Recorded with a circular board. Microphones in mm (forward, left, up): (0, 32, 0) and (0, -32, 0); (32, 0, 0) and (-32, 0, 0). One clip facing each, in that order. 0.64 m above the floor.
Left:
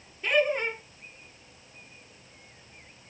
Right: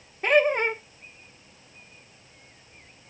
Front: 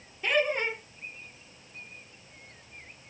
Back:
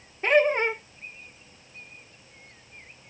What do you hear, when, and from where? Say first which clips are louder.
0.2 s laughter: right 5 dB, back 6 dB; 130° right, 1.5 m